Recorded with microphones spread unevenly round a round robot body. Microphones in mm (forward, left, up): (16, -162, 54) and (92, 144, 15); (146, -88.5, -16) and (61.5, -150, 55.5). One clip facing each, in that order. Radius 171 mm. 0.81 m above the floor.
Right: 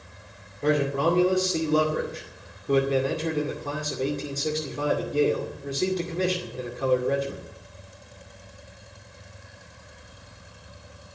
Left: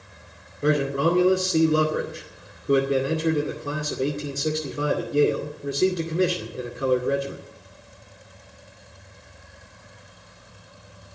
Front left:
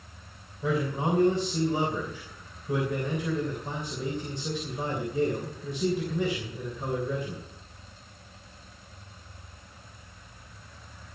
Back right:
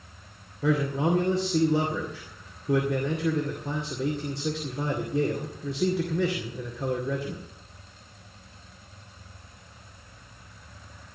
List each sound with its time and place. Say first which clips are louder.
0.6 s a man speaking: left 1 dB, back right 3 dB; 150° left, 2.0 m